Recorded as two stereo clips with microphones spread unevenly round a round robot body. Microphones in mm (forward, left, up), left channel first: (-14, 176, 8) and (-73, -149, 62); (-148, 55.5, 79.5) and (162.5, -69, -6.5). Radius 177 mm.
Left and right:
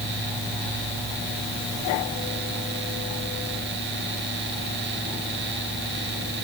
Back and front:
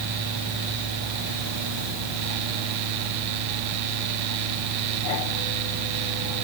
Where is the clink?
No clink in this recording.